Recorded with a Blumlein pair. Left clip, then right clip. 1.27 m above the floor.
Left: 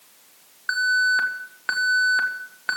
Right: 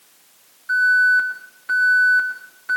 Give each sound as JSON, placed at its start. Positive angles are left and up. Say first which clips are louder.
{"t": 0.7, "sound": "an alarm", "louder": "right 5 dB", "azimuth_deg": 55, "distance_m": 1.9}